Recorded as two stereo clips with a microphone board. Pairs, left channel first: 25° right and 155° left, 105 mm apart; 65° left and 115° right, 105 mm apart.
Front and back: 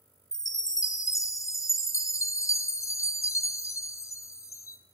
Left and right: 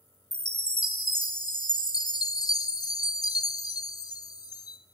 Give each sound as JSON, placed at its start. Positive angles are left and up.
{"t": 0.3, "sound": "a chime", "azimuth_deg": 30, "distance_m": 0.5}